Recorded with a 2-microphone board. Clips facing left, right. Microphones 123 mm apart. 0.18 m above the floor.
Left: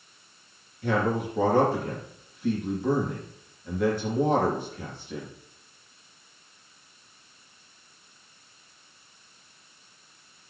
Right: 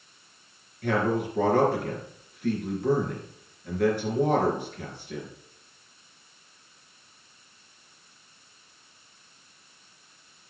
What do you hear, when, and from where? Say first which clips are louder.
0.8 s a man speaking: even; 60° right (ahead or behind), 3 m